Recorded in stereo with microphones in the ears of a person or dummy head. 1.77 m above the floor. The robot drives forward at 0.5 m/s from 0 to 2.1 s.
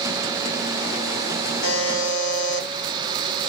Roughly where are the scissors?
No scissors in this recording.